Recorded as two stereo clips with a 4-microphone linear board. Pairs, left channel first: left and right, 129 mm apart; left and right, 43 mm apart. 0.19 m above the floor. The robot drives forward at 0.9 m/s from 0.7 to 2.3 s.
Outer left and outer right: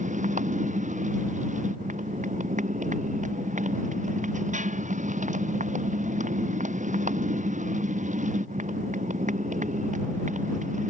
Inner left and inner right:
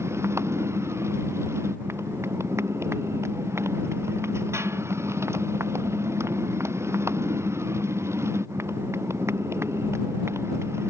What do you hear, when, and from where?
0.0 s a motorcycle: 85° right